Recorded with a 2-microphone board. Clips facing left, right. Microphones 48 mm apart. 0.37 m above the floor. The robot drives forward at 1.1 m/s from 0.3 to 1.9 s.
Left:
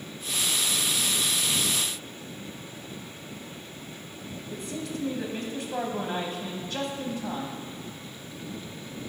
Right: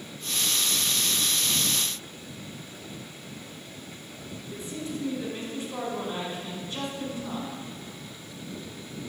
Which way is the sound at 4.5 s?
60° left (ahead or behind).